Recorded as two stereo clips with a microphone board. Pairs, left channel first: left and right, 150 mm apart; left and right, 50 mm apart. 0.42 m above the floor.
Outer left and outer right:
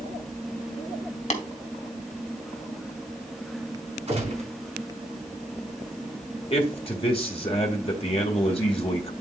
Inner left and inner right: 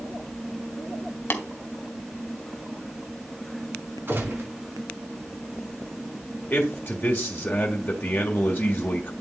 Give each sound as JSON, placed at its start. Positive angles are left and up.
{"t": 1.3, "sound": "tapping", "side_deg": 50, "distance_m": 1.9}
{"t": 4.1, "sound": "a gunshot", "side_deg": -45, "distance_m": 4.0}
{"t": 6.5, "sound": "a man speaking", "side_deg": 40, "distance_m": 1.6}